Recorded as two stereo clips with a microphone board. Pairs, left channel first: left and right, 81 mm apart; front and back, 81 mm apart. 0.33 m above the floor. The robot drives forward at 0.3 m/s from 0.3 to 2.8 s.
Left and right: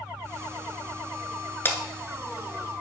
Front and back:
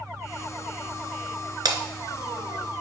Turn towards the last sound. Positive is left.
turn(degrees=155)